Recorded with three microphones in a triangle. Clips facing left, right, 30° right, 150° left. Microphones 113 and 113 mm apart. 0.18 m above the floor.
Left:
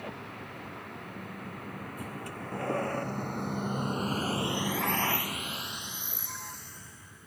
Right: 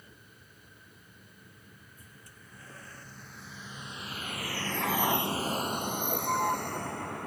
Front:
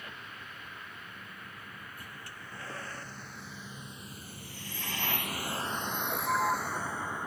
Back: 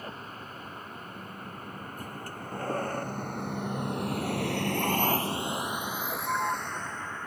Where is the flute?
I don't hear a flute.